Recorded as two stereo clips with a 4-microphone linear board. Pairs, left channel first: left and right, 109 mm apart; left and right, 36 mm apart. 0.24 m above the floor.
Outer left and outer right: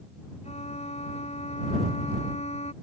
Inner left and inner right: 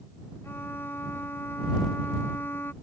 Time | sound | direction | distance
0.4 | a violin | 80° left | ?